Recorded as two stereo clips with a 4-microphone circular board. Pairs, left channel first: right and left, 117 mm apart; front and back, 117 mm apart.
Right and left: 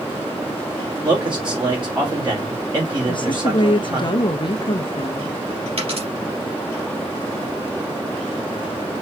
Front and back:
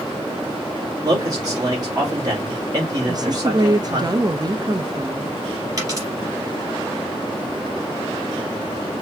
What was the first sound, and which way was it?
A man speaking, 130° left.